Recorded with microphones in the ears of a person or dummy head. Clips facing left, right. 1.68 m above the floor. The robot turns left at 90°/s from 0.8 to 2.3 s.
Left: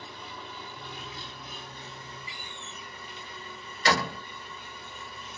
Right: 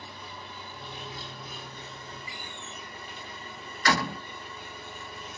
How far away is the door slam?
About 1.5 m.